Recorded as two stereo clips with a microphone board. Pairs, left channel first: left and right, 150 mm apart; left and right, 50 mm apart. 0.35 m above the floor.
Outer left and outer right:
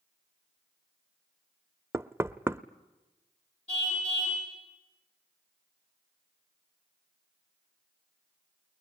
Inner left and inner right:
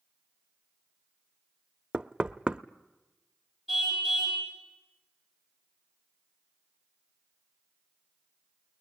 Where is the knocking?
15° right (ahead or behind), 0.5 m.